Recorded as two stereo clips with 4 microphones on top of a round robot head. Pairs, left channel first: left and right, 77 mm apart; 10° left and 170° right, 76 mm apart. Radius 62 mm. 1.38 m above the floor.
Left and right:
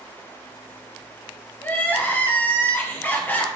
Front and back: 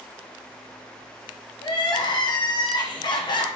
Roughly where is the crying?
Ahead left.